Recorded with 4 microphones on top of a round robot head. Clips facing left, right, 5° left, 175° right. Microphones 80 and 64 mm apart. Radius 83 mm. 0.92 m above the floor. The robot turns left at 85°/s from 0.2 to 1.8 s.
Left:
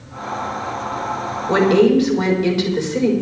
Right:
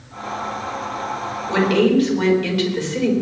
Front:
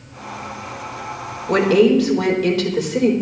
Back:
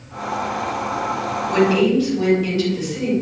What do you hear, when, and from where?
1.5 s a woman speaking: 45° left, 4.5 m; by 3.1 s 20° left, 4.5 m